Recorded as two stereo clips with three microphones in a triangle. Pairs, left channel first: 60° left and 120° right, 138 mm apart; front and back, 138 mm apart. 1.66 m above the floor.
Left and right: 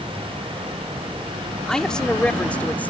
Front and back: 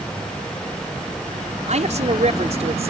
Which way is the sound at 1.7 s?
145° left.